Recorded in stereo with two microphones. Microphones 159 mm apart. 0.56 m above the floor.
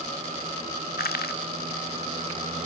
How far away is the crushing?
About 0.9 m.